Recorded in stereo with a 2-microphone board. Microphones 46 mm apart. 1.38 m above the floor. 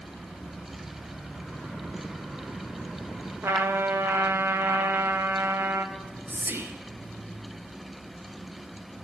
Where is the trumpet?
70° right (ahead or behind), 0.9 m.